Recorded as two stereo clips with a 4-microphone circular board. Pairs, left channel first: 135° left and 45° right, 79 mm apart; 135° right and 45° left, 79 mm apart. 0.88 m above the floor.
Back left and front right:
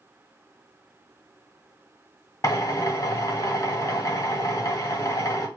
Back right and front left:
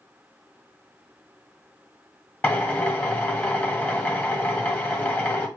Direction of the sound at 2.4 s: 165° left.